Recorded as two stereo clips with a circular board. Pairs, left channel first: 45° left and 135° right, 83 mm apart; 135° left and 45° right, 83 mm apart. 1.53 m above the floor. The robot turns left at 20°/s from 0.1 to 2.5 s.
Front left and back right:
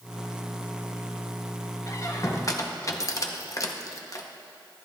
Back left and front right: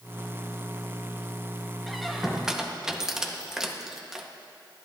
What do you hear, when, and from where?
1.9 s a squeak: 50° left, 0.9 m; by 4.3 s 35° left, 0.9 m